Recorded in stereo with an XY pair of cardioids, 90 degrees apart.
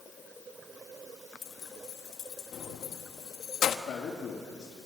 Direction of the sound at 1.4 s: 70° left.